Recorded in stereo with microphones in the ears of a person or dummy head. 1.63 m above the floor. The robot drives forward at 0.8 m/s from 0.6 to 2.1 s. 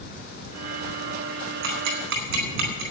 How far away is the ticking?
About 3.5 m.